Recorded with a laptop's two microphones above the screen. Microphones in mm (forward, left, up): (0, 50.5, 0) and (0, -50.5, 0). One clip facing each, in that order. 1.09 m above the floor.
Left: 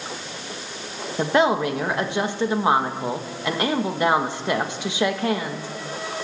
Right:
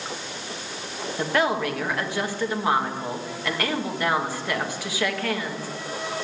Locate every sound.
1.2 s a woman speaking: 25° left (ahead or behind), 1.5 m